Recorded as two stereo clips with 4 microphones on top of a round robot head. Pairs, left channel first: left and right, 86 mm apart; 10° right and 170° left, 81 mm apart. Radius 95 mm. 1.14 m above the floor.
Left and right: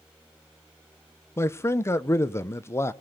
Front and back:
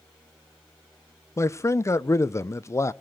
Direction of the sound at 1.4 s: 40° left.